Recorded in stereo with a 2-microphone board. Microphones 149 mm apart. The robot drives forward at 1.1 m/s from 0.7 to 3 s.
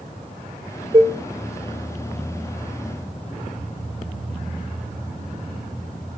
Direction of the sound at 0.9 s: 45° right (ahead or behind).